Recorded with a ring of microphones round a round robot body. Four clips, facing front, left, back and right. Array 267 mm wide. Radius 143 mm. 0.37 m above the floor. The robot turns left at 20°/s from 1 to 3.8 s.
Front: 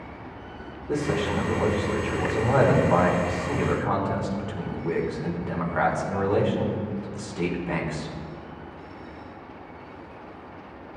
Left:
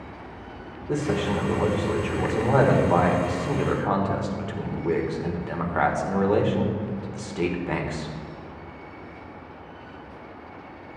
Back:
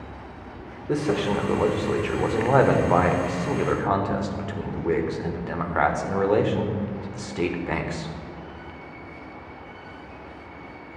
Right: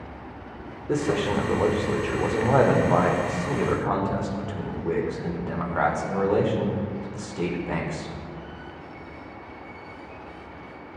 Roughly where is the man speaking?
Behind right.